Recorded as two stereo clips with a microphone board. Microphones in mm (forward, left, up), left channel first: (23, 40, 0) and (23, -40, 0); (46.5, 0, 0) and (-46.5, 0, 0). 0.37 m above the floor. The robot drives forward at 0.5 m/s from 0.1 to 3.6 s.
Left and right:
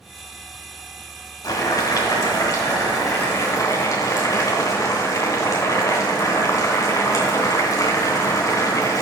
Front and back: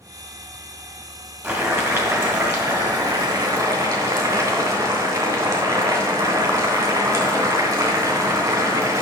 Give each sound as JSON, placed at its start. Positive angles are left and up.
{"t": 1.4, "sound": "boiling", "azimuth_deg": 120, "distance_m": 1.9}